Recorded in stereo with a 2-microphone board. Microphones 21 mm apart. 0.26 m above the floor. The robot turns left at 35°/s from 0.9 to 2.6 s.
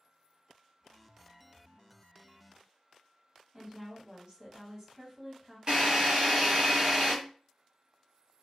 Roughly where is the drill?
Right.